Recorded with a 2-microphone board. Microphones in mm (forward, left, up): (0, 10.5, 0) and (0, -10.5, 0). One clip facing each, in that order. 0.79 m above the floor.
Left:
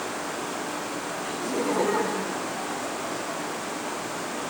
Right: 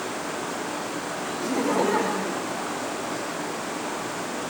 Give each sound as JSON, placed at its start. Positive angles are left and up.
{"t": 1.4, "sound": "laughter", "side_deg": -50, "distance_m": 1.9}